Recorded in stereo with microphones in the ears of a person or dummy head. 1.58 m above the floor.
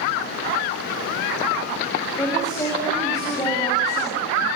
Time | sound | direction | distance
2.2 | a woman speaking | 10° left (ahead or behind) | 8 m